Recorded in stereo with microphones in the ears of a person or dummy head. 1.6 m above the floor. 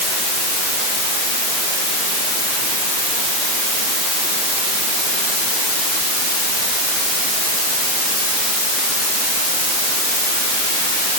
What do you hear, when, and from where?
Only background noise.